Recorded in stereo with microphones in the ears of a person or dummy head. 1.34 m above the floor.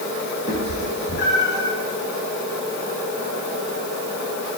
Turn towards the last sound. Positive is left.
turn(degrees=60)  # may be behind; listen again after turning